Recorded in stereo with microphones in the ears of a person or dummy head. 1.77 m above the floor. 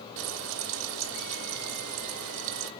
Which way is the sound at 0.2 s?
65° right (ahead or behind).